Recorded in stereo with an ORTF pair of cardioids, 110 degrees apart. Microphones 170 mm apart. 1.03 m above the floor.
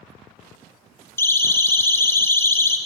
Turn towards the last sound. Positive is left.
turn(degrees=15)